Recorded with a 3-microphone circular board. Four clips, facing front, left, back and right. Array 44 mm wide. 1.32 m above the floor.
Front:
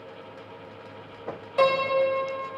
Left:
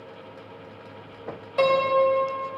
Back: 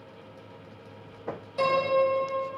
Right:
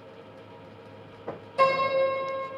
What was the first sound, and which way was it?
A piano, 45° left.